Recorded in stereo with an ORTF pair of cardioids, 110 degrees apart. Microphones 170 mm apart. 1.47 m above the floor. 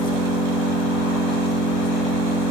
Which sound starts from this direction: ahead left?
An engine running, at 0.0 s.